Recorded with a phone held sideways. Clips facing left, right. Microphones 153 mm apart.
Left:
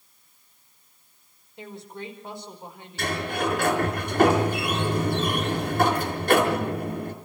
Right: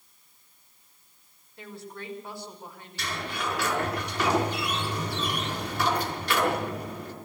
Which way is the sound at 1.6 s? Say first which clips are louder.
Left 3 dB; 20° left (ahead or behind).